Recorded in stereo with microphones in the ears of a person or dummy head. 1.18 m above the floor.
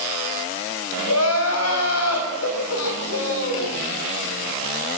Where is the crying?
80° left, 5 m.